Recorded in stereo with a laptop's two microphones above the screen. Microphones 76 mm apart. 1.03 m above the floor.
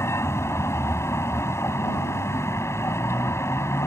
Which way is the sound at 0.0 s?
40° left (ahead or behind).